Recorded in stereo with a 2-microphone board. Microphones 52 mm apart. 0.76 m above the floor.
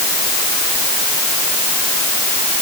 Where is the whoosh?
No whoosh in this recording.